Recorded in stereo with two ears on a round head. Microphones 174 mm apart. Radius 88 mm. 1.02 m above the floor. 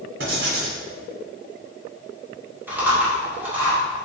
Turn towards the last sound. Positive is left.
turn(degrees=-10)  # may be behind; listen again after turning